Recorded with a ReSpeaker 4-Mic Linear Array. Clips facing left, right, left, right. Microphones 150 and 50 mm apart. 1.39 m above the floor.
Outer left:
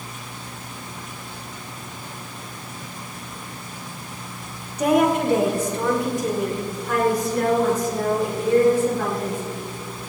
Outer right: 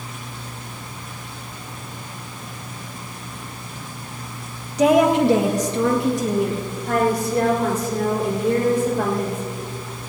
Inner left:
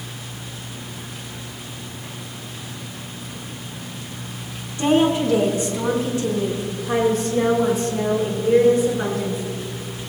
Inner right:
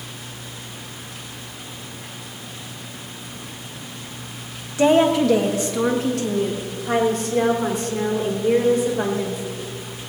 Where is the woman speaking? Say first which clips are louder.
Outer right 3 dB, inner right 2 dB; 85° right, 1.5 m; by 9.4 s 60° right (ahead or behind), 6 m.